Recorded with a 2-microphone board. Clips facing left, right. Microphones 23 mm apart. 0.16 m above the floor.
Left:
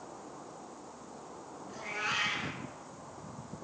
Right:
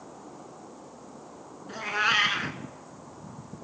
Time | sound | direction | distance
1.7 | a cat meowing | 45° right (ahead or behind) | 0.8 m